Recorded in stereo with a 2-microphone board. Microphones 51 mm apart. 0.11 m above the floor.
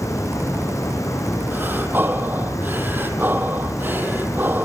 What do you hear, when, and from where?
0.0 s running water: 75° left (ahead or behind), 5 m
1.5 s breathing: 35° right (ahead or behind), 2 m